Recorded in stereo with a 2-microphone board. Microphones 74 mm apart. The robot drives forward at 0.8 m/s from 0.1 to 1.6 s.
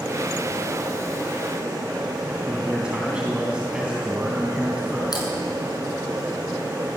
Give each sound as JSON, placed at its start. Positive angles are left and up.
{"t": 2.5, "sound": "a man speaking", "side_deg": -15, "distance_m": 4.0}
{"t": 5.1, "sound": "typing on a keyboard", "side_deg": 65, "distance_m": 6.5}